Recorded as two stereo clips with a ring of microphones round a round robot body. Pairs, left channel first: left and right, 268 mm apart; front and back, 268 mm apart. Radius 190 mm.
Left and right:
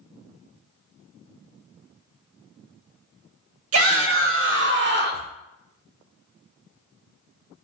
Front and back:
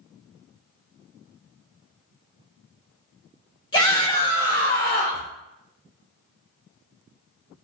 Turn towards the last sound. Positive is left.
turn(degrees=-45)